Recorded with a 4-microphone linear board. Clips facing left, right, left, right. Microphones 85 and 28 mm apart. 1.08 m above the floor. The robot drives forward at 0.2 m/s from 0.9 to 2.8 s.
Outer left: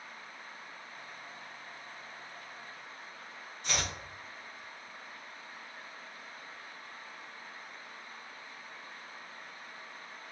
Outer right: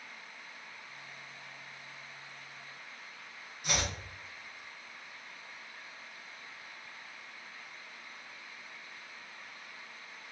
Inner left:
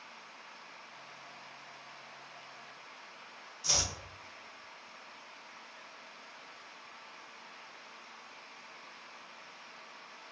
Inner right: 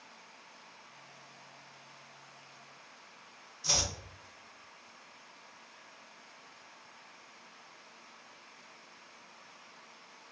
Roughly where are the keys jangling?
No keys jangling in this recording.